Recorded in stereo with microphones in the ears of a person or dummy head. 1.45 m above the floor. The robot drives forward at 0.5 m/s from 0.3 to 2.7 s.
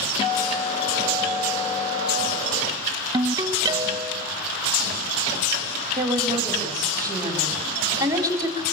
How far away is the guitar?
About 3 m.